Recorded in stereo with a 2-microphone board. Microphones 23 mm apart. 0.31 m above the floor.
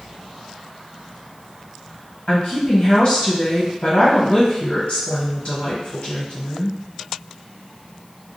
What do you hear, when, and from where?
2.3 s a woman speaking: 55° left (ahead or behind), 1.4 m